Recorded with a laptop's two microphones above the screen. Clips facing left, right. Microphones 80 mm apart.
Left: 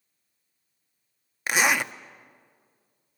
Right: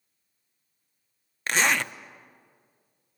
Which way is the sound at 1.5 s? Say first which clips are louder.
Left 1 dB; 10° left (ahead or behind).